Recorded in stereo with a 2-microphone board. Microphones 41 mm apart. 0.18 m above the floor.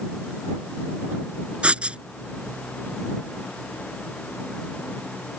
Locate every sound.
1.6 s writing: 30° right (ahead or behind)